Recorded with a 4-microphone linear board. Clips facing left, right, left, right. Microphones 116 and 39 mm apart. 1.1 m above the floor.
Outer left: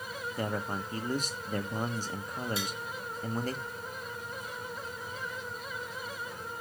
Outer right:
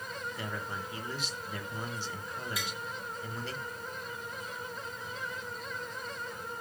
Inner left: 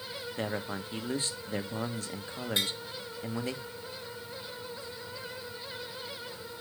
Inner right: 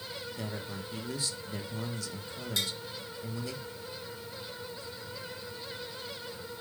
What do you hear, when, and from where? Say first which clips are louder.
0.4 s a man speaking: outer left 9 dB, inner left 8 dB; 40° left (ahead or behind), 1.0 m
2.6 s tapping: outer left 3 dB, inner left 2 dB; 30° left (ahead or behind), 1.5 m